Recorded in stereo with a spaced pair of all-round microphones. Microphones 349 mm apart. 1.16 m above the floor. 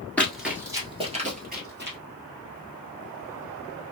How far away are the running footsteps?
About 1.2 m.